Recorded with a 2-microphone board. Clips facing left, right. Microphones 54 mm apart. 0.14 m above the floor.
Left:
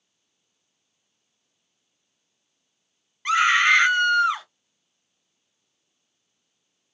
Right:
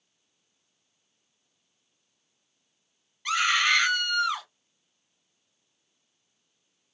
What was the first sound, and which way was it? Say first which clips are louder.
A scream: left 6 dB; 30° left (ahead or behind).